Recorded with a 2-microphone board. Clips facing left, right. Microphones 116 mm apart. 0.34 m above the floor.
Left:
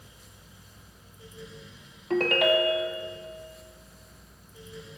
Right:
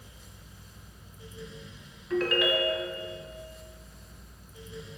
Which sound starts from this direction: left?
A ringtone, at 2.1 s.